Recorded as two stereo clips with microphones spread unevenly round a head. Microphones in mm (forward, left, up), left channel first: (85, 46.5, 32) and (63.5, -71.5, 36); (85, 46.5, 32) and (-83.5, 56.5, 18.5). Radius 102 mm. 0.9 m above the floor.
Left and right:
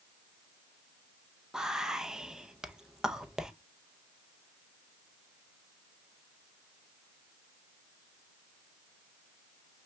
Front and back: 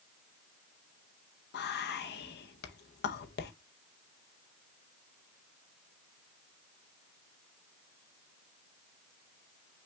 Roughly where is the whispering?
Ahead.